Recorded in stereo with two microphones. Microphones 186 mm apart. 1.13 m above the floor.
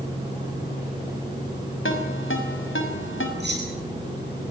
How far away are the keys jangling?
About 9 m.